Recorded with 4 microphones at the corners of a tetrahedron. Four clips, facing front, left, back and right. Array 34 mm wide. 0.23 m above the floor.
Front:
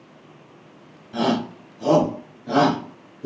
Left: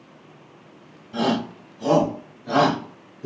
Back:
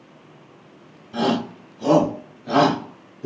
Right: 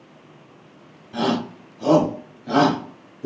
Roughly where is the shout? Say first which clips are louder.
Even, even; ahead right.